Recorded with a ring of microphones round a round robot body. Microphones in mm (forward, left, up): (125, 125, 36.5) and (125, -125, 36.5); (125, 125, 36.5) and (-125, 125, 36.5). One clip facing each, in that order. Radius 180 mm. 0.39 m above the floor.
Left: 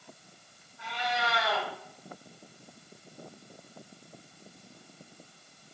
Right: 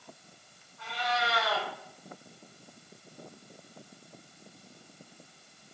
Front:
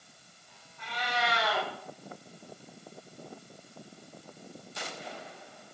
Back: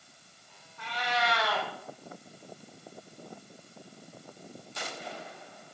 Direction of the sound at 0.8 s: 170° left.